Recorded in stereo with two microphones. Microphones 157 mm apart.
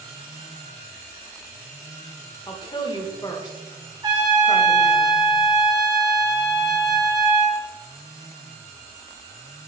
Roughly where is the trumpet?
Right.